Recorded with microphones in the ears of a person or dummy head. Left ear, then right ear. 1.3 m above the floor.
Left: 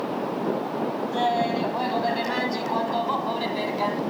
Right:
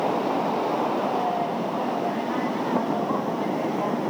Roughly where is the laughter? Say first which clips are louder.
Left 2 dB; left.